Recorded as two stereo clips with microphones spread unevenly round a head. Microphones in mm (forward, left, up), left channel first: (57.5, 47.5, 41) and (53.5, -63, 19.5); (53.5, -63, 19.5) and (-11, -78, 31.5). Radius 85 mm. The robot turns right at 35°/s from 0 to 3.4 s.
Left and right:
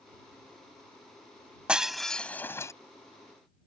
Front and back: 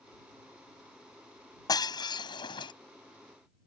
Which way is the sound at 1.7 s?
10° right.